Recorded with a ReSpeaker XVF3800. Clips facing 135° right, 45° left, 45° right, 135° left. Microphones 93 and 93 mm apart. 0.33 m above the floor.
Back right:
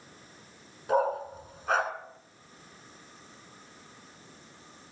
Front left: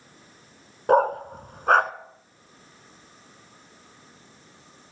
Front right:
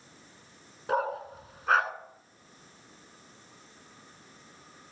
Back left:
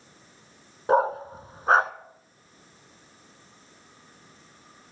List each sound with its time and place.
0.9 s a dog barking: 75° left, 0.9 m